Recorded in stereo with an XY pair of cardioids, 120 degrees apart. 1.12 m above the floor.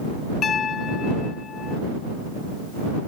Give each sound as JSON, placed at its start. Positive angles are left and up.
{"t": 0.4, "sound": "a piano", "azimuth_deg": 45}